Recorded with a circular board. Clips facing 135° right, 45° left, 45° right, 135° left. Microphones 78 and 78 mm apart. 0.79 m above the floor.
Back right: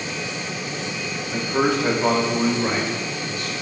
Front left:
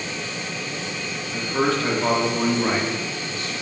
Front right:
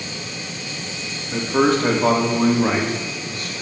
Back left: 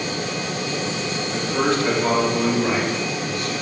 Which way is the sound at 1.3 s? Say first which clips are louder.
Back right 1 dB, front right 4 dB; 75° right.